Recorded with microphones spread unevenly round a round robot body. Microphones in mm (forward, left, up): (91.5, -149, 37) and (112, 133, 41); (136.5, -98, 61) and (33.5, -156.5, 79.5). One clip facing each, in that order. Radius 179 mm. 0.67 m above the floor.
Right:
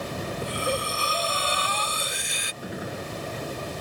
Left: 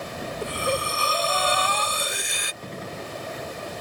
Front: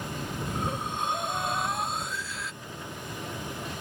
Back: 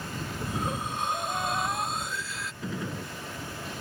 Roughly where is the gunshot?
Behind.